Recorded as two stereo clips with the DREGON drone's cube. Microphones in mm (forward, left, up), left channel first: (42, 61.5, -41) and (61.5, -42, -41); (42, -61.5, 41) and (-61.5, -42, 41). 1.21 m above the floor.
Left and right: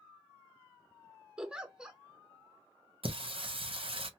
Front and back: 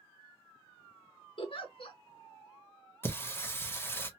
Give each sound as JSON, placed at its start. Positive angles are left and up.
{"t": 1.4, "sound": "a giggle", "azimuth_deg": 0, "distance_m": 0.6}
{"t": 3.0, "sound": "singing", "azimuth_deg": -75, "distance_m": 0.6}